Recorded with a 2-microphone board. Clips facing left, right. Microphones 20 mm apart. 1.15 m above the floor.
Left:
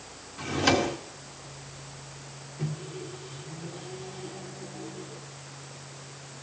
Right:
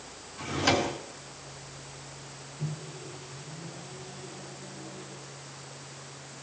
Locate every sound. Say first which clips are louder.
0.4 s a drawer: left 2 dB; 15° left (ahead or behind), 1.9 m
2.6 s a microwave: left 3 dB; 55° left (ahead or behind), 3 m